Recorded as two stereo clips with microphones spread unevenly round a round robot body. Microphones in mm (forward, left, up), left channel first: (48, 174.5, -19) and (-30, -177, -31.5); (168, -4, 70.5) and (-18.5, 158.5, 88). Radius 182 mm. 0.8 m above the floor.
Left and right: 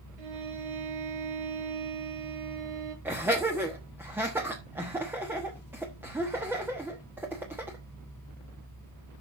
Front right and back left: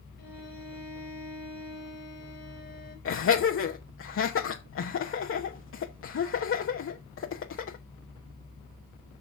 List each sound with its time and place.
0.2 s a violin: 110° right, 4 m
3.0 s laughter: 20° right, 1.1 m